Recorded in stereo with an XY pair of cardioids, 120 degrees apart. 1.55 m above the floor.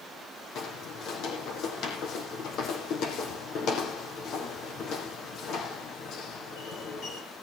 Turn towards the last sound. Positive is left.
turn(degrees=60)